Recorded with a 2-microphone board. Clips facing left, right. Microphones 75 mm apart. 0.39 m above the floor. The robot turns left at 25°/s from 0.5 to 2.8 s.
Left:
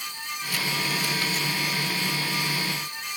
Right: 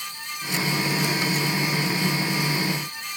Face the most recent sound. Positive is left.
No sound to turn to.